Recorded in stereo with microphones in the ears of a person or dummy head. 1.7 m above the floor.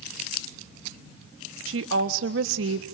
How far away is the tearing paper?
I don't hear tearing paper.